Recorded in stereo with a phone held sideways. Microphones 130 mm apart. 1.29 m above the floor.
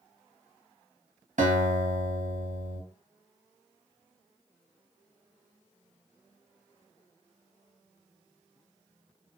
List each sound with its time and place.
1.4 s a guitar: 80° right, 1.3 m